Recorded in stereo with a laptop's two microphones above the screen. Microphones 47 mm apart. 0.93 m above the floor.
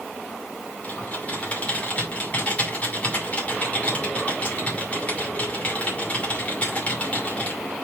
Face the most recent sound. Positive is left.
turn(degrees=30)  # may be behind; listen again after turning